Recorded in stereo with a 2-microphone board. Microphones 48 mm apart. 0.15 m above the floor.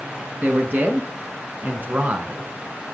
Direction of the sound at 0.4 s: 45° right (ahead or behind).